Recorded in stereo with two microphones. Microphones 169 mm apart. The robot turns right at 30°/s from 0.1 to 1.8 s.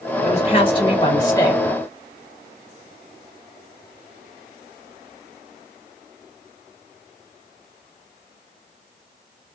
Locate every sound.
0.2 s a woman speaking: 120° left, 1.4 m; by 1.6 s 165° left, 1.4 m